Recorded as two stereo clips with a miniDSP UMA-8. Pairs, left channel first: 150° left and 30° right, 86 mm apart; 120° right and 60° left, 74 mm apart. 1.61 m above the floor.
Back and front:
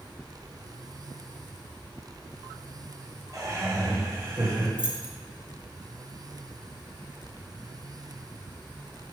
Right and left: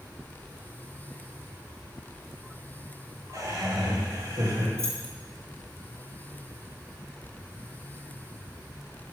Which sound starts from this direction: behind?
Keys jangling, at 4.8 s.